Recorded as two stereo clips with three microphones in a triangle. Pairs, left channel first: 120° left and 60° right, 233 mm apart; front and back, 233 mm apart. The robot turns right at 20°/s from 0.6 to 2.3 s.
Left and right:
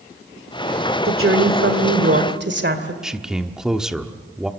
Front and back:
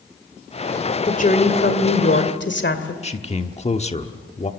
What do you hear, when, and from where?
1.1 s a woman speaking: 55° right, 2 m; by 2.9 s 30° right, 2 m
3.0 s a man speaking: 25° left, 1.2 m